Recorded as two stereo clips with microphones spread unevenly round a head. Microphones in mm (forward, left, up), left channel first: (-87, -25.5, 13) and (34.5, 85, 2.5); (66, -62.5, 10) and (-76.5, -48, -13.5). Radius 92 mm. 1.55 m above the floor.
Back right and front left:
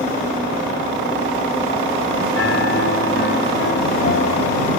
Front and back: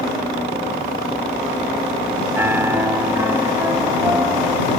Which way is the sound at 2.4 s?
110° right.